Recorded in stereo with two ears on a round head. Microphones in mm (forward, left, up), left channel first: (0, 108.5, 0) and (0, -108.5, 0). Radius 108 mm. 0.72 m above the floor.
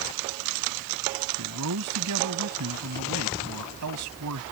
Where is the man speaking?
80° right.